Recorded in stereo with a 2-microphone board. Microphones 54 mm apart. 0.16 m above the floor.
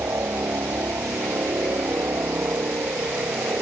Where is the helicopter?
55° right (ahead or behind); by 3.6 s 50° right (ahead or behind).